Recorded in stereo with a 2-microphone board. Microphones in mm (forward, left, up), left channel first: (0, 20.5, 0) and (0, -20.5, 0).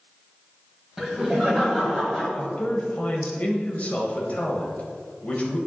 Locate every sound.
1.0 s laughter: 10° right (ahead or behind), 1.7 m
2.4 s a man speaking: 40° left (ahead or behind), 1.4 m